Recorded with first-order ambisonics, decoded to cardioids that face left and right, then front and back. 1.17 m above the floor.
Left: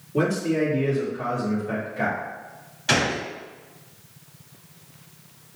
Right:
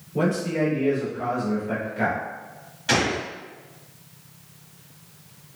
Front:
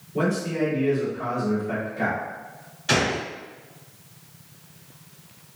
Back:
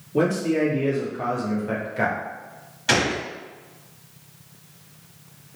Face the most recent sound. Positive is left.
turn(degrees=160)